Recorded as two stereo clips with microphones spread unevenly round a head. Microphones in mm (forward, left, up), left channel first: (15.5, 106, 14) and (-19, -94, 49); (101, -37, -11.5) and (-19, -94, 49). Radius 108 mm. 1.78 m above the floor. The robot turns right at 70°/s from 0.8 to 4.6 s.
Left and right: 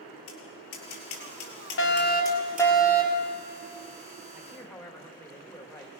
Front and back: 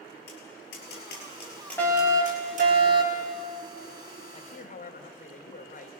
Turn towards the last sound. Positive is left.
turn(degrees=-5)